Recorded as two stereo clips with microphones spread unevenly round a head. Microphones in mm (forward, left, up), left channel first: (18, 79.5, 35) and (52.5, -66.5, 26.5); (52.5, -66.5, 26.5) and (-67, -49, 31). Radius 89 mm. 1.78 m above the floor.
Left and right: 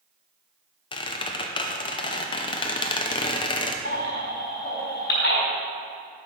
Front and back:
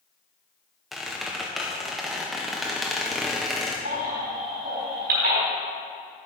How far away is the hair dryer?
I don't hear a hair dryer.